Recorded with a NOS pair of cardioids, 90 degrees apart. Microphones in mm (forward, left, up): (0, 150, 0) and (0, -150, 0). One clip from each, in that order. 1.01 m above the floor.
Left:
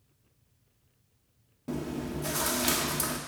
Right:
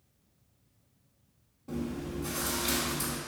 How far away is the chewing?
About 1.1 m.